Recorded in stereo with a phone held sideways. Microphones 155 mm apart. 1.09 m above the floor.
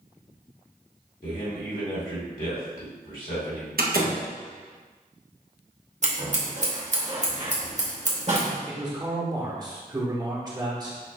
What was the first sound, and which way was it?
A man speaking, 65° left (ahead or behind).